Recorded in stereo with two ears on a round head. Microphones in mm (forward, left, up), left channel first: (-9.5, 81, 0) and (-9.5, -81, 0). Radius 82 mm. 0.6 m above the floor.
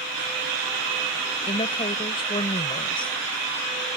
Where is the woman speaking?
30° left (ahead or behind).